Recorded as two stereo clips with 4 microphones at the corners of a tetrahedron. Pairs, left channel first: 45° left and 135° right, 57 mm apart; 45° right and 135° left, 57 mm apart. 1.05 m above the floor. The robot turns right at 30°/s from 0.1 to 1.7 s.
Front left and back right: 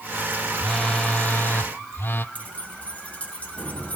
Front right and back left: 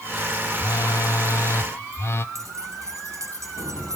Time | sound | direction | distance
0.6 | a phone buzzing | 35° right | 0.7 m
2.4 | keys jangling | 110° left | 6.5 m